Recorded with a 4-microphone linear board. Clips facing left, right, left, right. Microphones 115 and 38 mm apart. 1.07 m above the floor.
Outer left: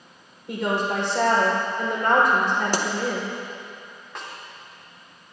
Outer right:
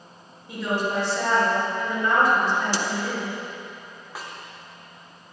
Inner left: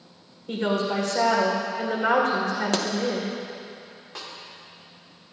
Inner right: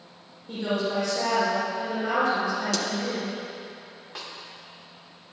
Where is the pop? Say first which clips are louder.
Outer left 2 dB, inner left 3 dB; 45° left (ahead or behind), 0.9 m.